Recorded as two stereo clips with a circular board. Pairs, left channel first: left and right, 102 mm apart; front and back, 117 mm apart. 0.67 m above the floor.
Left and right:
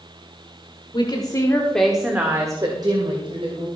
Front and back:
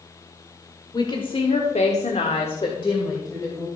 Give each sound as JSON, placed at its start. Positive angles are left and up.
{"t": 0.9, "sound": "a woman speaking", "azimuth_deg": 50, "distance_m": 1.8}